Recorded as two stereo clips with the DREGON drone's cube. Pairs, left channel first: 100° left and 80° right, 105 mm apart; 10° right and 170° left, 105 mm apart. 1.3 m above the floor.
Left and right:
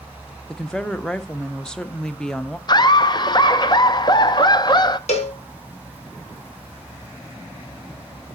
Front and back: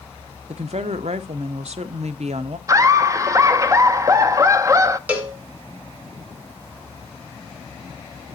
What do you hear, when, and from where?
0.5 s a woman speaking: 175° right, 0.7 m
2.7 s laughter: 120° left, 0.6 m
5.1 s a cowbell: 95° left, 2 m